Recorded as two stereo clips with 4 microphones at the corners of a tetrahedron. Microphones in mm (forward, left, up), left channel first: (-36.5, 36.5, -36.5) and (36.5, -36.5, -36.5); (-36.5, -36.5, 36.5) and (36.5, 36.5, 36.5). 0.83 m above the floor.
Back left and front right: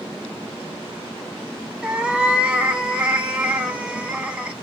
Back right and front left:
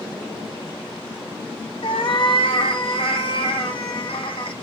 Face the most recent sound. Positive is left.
turn(degrees=-125)